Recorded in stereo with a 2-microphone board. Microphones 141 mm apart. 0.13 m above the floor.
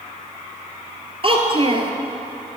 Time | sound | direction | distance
1.2 | a child speaking | 40° right (ahead or behind) | 1.5 m